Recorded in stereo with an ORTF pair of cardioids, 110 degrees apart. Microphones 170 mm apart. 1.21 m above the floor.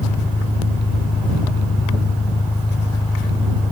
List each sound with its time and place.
0.0 s an engine running: 10° left